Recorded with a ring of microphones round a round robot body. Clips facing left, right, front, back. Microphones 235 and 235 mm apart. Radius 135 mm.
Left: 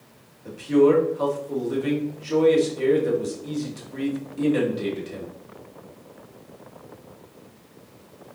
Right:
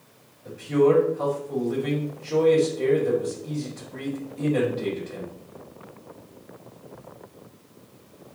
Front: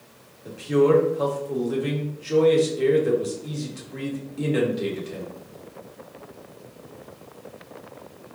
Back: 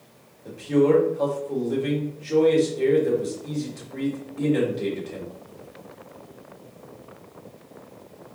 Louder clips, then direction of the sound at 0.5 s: Left 2 dB, even; 80° left.